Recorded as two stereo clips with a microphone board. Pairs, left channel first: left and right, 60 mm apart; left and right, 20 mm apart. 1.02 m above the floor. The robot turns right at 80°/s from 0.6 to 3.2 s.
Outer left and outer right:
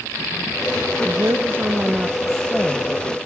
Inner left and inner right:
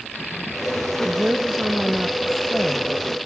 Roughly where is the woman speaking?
Right.